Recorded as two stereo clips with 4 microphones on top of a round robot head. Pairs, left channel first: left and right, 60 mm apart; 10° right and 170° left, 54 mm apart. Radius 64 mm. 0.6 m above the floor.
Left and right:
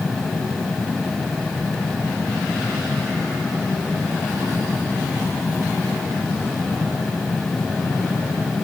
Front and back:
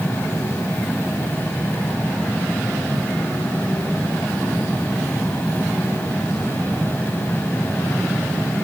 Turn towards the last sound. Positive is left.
No sound to turn to.